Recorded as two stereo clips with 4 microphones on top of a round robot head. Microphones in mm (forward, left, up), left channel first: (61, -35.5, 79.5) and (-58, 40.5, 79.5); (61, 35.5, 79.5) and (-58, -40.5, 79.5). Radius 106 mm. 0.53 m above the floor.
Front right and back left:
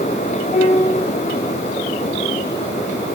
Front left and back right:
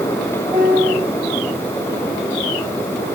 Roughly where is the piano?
Right.